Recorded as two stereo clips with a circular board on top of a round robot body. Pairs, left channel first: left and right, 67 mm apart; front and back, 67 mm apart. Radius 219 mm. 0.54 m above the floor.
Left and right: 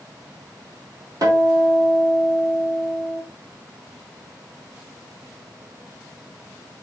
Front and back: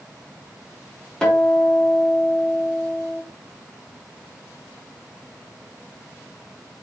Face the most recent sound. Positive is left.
turn(degrees=-80)